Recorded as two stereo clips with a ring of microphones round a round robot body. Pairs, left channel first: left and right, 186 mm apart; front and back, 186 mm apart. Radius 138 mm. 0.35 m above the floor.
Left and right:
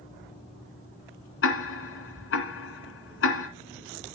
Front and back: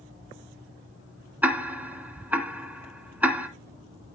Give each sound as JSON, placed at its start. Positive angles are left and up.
{"t": 1.4, "sound": "ticking", "azimuth_deg": 100, "distance_m": 2.0}